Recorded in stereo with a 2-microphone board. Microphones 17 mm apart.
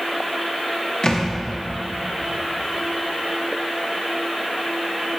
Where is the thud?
45° left (ahead or behind), 1.4 m.